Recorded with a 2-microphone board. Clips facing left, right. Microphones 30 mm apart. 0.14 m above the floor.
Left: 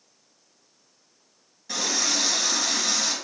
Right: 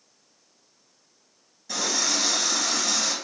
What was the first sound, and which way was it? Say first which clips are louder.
A running tap: even; 15° left (ahead or behind).